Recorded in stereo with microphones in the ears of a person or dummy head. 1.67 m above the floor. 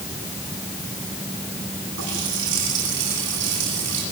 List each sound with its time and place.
2.0 s a running tap: 65° right (ahead or behind), 9.5 m